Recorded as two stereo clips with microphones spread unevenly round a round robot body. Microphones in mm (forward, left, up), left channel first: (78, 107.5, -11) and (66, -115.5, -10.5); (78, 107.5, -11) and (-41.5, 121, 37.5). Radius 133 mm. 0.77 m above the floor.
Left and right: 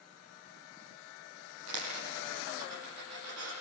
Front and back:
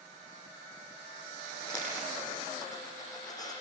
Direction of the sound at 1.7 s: 90° right.